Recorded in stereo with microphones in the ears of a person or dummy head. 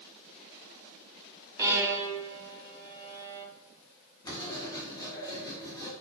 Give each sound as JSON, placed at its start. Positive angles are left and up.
{"t": 1.6, "sound": "a violin", "side_deg": -20, "distance_m": 1.8}
{"t": 4.2, "sound": "writing", "side_deg": 25, "distance_m": 2.5}